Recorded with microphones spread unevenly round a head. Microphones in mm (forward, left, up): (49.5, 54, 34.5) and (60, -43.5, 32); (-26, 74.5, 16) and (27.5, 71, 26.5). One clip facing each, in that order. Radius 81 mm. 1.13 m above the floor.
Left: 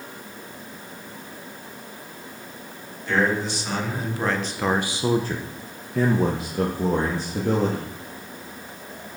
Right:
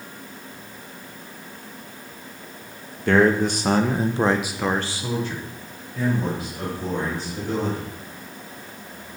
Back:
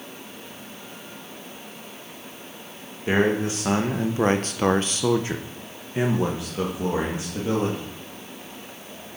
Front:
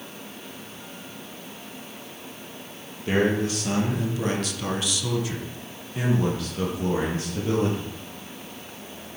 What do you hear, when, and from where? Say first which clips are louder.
3.1 s a man speaking: right 5 dB, back 1 dB; 115° right, 1.3 m; by 7.9 s 105° left, 2.5 m